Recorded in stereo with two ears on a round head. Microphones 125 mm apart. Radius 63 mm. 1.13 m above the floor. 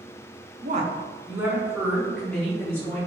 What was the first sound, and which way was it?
A woman speaking, 60° right (ahead or behind).